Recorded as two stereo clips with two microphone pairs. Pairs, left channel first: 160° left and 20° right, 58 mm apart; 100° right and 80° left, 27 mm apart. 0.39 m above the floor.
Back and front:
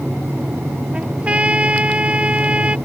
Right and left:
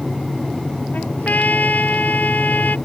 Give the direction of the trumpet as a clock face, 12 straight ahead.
3 o'clock.